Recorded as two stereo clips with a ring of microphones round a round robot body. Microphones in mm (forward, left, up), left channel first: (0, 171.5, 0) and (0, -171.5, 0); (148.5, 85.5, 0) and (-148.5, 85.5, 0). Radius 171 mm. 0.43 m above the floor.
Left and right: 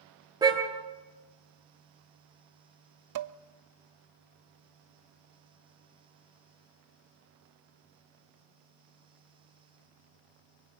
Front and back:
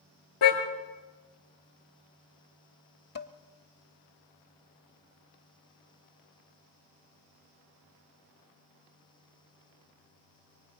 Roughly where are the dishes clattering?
Ahead right.